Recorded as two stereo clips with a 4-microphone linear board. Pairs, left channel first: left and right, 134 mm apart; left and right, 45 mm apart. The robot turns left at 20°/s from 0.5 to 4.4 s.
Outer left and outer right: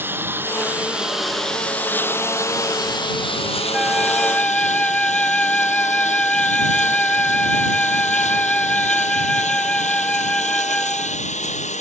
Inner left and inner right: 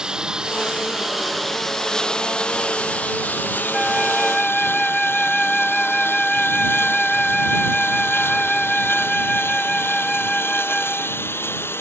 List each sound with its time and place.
0.0 s a lawn mower: 165° right; by 11.8 s 120° left
3.7 s a flute: 5° right (ahead or behind); by 11.3 s 10° left (ahead or behind)